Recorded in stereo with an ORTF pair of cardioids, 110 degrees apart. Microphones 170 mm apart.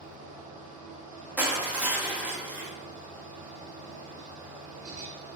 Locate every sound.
0.0 s a fan: 50° right, 0.7 m
1.4 s crushing: 10° right, 0.7 m